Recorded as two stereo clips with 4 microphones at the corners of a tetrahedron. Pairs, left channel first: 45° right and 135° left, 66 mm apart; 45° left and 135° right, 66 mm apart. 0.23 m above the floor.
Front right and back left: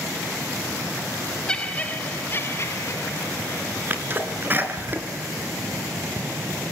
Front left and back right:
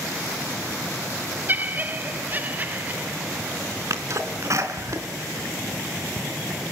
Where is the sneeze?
170° right, 3.5 m.